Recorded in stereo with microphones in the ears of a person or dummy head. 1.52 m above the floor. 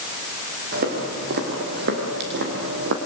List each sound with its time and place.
0.7 s footsteps: 50° right (ahead or behind), 5 m; by 3.0 s 65° right (ahead or behind), 4 m